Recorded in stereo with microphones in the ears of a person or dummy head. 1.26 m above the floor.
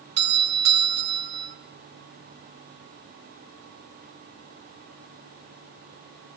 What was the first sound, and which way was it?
A doorbell, 55° right (ahead or behind).